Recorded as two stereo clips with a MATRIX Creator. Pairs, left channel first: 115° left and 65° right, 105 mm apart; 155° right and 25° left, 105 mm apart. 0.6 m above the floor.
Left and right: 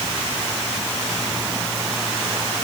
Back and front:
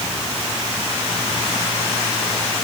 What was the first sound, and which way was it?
Only background noise.